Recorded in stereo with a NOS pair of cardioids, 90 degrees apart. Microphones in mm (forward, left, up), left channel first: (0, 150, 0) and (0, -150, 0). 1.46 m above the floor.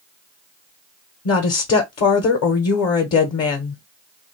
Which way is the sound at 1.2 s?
55° left.